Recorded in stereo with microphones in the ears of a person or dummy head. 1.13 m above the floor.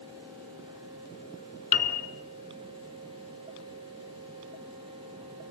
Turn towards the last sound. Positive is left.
turn(degrees=45)  # may be behind; listen again after turning